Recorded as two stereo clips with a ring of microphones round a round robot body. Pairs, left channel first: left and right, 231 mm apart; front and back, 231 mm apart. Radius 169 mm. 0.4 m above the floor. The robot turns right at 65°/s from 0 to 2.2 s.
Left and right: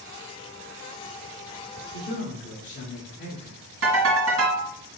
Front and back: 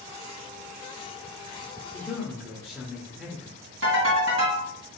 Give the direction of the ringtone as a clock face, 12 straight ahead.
5 o'clock.